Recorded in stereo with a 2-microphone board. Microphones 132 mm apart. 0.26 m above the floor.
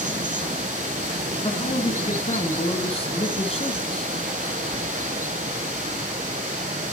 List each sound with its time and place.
0.0 s running water: 80° right, 0.8 m
1.4 s a man speaking: 50° left (ahead or behind), 2 m